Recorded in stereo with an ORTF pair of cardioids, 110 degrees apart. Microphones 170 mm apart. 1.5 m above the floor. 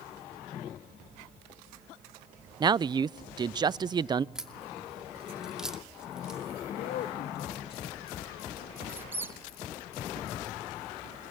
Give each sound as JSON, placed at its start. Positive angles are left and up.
{"t": 2.6, "sound": "a man speaking", "azimuth_deg": -25, "distance_m": 0.5}
{"t": 4.3, "sound": "a crack", "azimuth_deg": -5, "distance_m": 2.5}
{"t": 6.7, "sound": "a man speaking", "azimuth_deg": 70, "distance_m": 2.5}
{"t": 8.9, "sound": "a squeak", "azimuth_deg": -15, "distance_m": 2.5}